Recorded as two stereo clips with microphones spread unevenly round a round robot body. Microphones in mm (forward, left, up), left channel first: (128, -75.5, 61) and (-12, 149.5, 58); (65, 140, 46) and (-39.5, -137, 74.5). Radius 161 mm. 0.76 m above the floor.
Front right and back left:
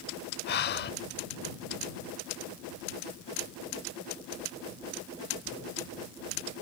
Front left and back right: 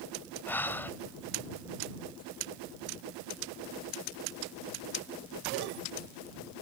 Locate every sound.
0.5 s breathing: 20° right